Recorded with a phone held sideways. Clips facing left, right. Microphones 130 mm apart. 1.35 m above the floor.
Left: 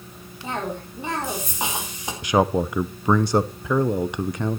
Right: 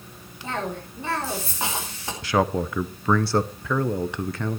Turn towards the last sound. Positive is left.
turn(degrees=15)  # may be behind; listen again after turning